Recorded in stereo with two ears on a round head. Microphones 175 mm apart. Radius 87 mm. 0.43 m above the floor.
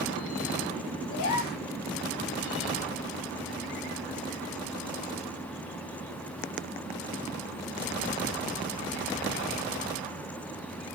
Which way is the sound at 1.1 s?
50° left (ahead or behind).